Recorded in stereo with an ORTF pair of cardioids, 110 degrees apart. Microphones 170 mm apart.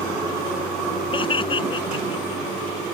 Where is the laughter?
30° left.